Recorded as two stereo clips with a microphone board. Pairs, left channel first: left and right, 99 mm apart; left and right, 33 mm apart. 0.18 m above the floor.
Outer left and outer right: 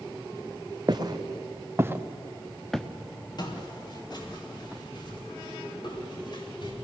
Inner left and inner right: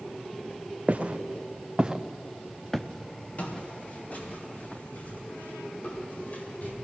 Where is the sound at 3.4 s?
45° left (ahead or behind), 6 m; by 6.7 s 50° left (ahead or behind), 8 m.